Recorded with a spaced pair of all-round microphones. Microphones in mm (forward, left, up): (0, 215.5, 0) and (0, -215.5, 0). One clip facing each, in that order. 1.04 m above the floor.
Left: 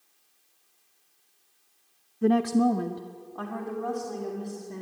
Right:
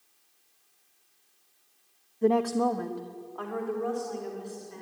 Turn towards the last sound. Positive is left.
turn(degrees=60)  # may be behind; listen again after turning